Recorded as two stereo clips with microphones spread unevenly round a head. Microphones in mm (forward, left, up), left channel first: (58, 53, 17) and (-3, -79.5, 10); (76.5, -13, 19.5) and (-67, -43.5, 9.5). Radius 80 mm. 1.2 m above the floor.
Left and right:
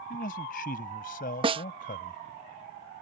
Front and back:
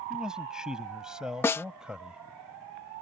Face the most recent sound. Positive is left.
turn(degrees=-60)